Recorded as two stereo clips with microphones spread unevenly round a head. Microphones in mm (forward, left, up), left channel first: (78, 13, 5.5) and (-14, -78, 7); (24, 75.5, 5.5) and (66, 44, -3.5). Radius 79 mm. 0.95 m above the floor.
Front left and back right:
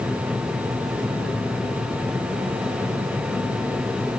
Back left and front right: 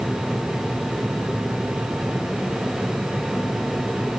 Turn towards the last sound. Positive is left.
No sound to turn to.